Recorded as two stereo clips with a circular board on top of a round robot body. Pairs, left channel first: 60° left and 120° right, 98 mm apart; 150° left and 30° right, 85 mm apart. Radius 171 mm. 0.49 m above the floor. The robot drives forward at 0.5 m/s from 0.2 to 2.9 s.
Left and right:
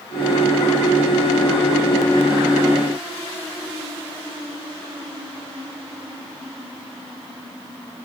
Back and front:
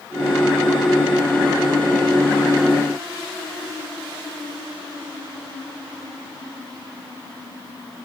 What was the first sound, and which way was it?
Only background noise.